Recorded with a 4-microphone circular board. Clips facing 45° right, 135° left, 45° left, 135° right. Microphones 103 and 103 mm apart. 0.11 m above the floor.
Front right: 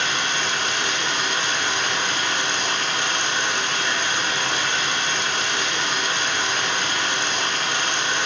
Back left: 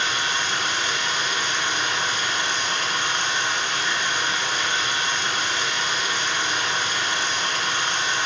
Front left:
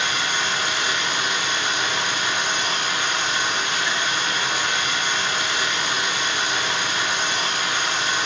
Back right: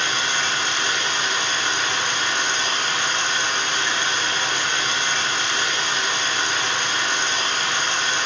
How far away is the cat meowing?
No cat meowing in this recording.